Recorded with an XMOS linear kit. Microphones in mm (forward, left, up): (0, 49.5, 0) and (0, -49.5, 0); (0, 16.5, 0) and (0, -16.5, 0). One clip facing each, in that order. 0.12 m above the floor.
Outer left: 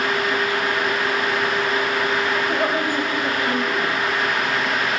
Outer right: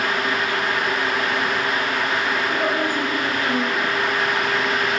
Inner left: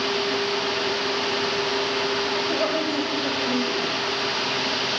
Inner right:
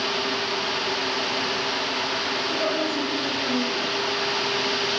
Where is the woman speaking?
20° left (ahead or behind), 8.5 m.